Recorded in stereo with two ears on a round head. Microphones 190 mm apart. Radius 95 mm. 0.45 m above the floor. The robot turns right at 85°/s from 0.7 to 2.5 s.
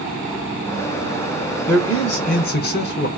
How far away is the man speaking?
About 1.0 m.